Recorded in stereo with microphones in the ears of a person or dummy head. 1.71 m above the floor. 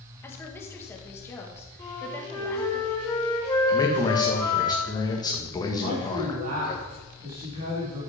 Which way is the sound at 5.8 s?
50° right (ahead or behind).